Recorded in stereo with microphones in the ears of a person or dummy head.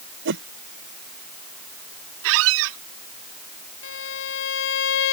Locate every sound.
0.2 s a whoosh: 65° right (ahead or behind)
2.2 s a squeak: 70° right (ahead or behind)
3.8 s a violin: 70° left (ahead or behind)